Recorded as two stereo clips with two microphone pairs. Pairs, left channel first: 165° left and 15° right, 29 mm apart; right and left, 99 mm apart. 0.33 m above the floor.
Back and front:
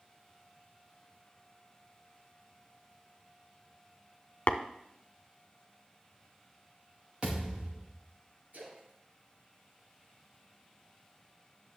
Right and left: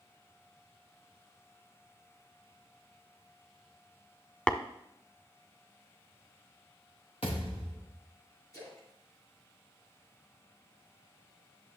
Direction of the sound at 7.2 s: 80° right.